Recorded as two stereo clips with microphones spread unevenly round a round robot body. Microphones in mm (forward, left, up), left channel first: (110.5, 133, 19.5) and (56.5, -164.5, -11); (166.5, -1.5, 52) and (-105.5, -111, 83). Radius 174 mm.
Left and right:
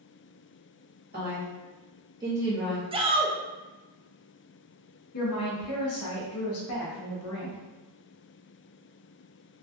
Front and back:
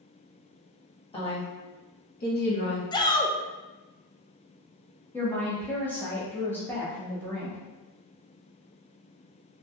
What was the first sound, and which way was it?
A woman speaking, 45° right.